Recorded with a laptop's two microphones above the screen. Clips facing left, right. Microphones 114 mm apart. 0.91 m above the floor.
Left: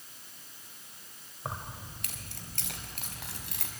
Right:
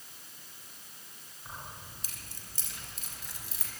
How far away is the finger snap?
No finger snap in this recording.